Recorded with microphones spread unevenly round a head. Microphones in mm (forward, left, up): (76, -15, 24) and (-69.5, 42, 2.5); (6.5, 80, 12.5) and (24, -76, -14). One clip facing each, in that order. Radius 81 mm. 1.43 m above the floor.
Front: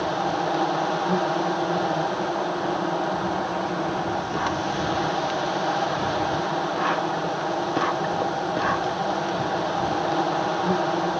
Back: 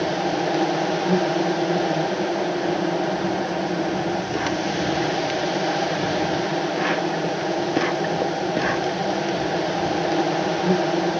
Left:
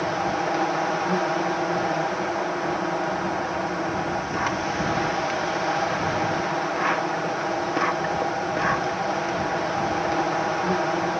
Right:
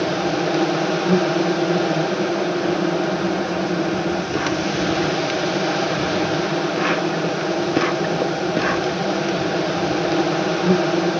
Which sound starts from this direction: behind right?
An insect, at 0.0 s.